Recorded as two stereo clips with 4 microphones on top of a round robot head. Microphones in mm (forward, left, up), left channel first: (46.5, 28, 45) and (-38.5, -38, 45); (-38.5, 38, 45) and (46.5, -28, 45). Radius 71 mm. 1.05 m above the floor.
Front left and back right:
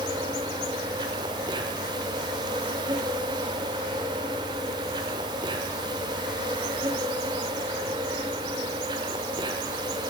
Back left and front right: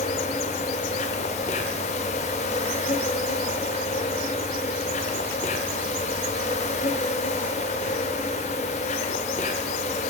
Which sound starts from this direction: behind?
An insect, at 0.0 s.